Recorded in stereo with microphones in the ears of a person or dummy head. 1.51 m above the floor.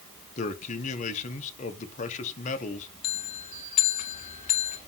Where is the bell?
25° left (ahead or behind), 1.0 m.